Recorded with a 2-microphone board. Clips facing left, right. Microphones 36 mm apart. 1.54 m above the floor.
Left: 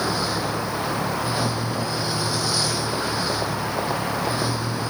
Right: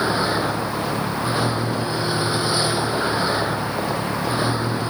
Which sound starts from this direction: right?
A vehicle, at 0.0 s.